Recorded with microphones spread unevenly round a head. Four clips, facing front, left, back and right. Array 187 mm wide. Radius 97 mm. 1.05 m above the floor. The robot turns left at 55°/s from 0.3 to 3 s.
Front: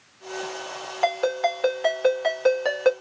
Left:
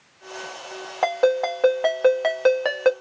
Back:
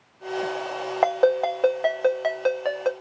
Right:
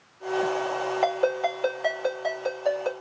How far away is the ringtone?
About 0.9 m.